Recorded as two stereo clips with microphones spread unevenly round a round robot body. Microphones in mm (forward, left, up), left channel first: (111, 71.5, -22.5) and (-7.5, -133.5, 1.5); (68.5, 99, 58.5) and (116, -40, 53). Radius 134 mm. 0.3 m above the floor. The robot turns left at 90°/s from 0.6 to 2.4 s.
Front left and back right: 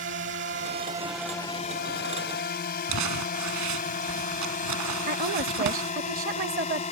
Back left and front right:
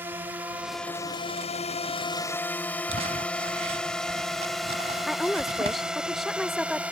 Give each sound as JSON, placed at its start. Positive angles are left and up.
{"t": 0.0, "sound": "a drone", "azimuth_deg": -140}
{"t": 2.9, "sound": "crumpling", "azimuth_deg": -125}
{"t": 5.1, "sound": "a woman speaking", "azimuth_deg": -155}